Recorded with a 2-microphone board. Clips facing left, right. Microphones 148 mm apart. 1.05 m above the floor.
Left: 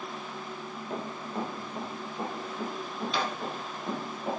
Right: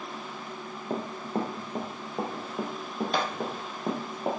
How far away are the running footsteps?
About 1.4 m.